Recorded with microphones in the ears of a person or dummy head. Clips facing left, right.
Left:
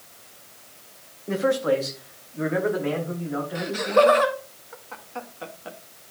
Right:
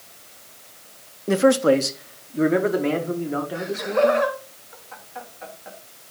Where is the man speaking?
55° right (ahead or behind), 0.6 m; by 4.2 s 50° right (ahead or behind), 2 m.